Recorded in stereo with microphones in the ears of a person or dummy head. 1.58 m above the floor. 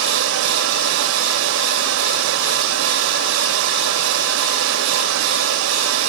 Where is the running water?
65° right (ahead or behind), 1.7 m.